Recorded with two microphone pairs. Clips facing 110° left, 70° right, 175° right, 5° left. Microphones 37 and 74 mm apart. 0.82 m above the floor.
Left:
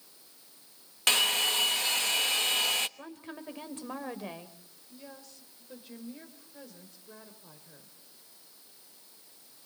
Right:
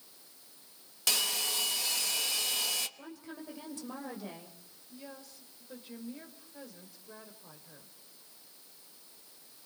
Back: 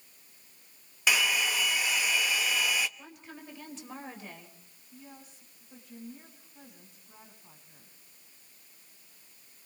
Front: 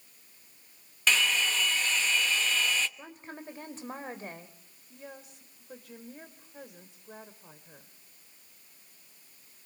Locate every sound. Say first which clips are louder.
1.1 s a hair dryer: left 7 dB, even; 115° left, 1.1 m
3.0 s a woman speaking: left 2 dB, front 3 dB; 60° left, 3 m
4.9 s a woman speaking: right 1 dB, front 4 dB; 10° left, 4 m